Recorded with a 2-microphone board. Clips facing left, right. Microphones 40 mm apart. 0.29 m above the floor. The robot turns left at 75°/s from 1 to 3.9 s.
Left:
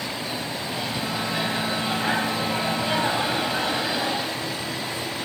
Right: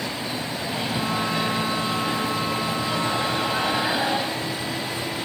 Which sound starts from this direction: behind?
A microwave, at 0.6 s.